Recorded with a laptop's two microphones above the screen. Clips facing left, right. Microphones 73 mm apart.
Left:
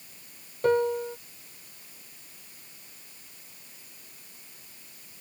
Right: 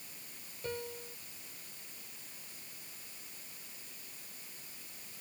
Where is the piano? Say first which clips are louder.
Left 18 dB; 70° left (ahead or behind).